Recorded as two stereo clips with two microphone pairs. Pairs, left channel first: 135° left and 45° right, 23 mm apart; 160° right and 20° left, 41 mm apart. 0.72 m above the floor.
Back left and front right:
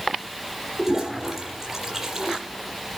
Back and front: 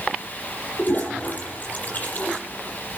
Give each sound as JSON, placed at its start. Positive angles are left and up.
{"t": 0.8, "sound": "a toilet flushing", "azimuth_deg": -120, "distance_m": 7.5}